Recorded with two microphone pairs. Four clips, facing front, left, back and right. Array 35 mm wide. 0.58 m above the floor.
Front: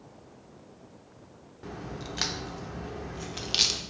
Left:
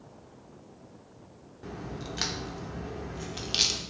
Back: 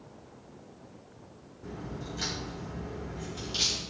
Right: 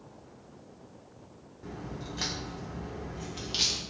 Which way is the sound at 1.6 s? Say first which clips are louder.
Left 2 dB, front 1 dB; 25° left.